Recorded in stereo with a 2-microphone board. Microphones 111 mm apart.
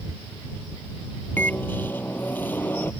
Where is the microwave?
15° left (ahead or behind).